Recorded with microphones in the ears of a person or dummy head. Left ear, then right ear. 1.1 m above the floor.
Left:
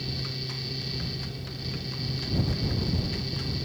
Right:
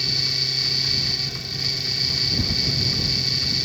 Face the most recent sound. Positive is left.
turn(degrees=-55)  # may be behind; listen again after turning